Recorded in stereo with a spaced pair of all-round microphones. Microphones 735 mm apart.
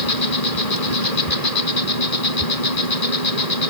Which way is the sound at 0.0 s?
55° left (ahead or behind).